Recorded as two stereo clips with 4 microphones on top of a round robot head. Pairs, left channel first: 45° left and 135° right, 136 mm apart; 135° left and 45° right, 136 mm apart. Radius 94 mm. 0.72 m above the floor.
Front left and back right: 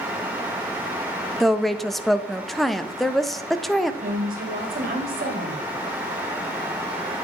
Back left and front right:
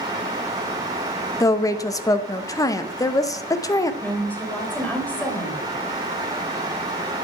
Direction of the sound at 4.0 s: 145° right.